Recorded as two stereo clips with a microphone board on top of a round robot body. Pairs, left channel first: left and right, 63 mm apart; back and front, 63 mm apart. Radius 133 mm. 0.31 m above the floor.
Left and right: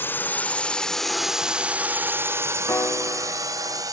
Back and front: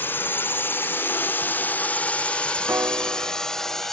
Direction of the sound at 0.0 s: 135° left.